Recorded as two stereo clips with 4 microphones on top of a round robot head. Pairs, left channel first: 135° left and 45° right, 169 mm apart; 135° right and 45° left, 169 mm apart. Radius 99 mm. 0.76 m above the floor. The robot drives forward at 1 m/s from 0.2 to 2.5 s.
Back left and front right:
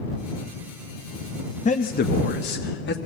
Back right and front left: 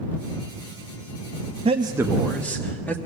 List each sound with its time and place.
1.6 s a man speaking: 95° left, 0.8 m; by 3.0 s 145° left, 1.2 m